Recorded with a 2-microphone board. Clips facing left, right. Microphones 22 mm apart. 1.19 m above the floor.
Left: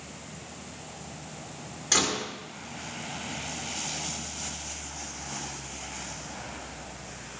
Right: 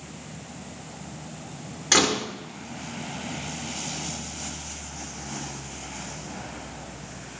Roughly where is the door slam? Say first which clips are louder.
Right 5 dB; right.